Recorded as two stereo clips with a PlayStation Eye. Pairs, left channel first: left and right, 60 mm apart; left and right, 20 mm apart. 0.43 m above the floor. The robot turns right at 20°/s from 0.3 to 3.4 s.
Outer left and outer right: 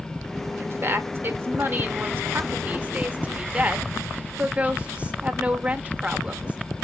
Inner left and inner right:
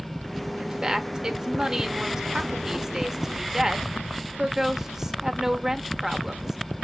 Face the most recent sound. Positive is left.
turn(degrees=-20)  # may be behind; listen again after turning